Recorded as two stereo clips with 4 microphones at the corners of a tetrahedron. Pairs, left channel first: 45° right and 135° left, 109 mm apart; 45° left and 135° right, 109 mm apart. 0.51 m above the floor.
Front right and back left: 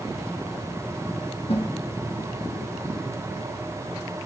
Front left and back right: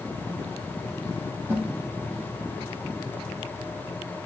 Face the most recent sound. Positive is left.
turn(degrees=-65)